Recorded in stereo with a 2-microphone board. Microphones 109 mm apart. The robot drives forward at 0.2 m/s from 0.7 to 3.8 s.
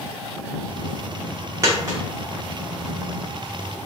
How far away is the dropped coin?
About 1.6 m.